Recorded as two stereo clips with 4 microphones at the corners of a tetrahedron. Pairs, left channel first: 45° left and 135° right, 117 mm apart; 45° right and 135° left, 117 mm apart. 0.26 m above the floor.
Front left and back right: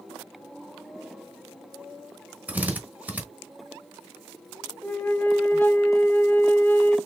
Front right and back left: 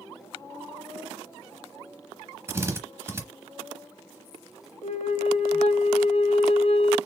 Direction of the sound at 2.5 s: 165° left.